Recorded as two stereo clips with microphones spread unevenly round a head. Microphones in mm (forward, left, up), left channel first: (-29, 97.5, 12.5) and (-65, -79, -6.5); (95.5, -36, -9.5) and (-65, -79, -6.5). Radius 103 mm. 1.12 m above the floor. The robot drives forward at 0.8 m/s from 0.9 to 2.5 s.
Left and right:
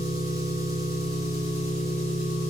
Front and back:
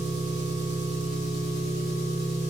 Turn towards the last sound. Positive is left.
turn(degrees=-175)